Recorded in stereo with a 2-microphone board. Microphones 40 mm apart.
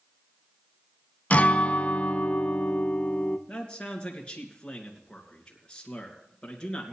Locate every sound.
1.3 s a guitar: 35° left (ahead or behind), 0.7 m
3.5 s a man speaking: 25° left (ahead or behind), 3 m